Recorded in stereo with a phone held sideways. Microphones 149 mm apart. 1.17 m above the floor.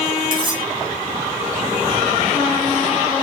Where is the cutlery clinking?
35° right (ahead or behind), 5 m.